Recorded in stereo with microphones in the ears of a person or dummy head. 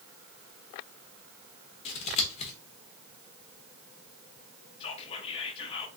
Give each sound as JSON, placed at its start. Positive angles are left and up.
{"t": 1.9, "sound": "scissors", "side_deg": 30, "distance_m": 1.1}
{"t": 4.8, "sound": "whispering", "side_deg": 30, "distance_m": 0.8}